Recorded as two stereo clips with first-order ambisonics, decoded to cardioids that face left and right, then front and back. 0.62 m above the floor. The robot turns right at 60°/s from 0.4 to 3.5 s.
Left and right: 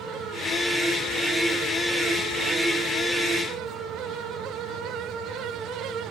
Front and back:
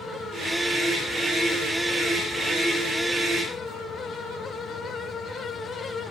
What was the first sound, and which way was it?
Only background noise.